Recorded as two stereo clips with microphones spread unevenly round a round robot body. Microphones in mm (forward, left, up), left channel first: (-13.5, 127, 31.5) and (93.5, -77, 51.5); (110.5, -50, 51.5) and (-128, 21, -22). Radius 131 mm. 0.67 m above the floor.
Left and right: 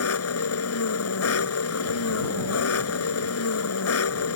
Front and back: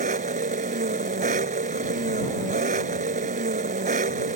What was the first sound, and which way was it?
An engine running, 100° left.